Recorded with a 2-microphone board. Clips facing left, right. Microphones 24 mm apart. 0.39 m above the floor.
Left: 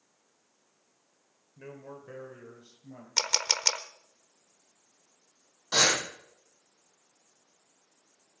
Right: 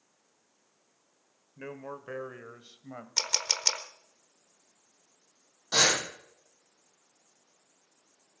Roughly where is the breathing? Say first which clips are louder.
Even; left.